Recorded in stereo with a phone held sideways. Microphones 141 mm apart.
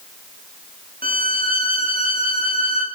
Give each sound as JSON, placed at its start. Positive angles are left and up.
{"t": 1.0, "sound": "a violin", "side_deg": -80, "distance_m": 4.0}